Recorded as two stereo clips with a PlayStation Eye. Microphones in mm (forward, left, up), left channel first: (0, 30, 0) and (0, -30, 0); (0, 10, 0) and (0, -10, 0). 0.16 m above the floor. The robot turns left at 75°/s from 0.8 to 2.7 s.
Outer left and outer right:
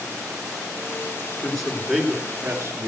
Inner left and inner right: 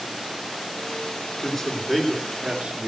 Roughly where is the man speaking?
Ahead.